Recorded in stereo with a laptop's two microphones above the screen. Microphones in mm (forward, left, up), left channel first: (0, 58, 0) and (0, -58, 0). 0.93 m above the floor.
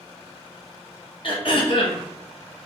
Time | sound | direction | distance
1.2 | throat clearing | 50° left (ahead or behind) | 0.8 m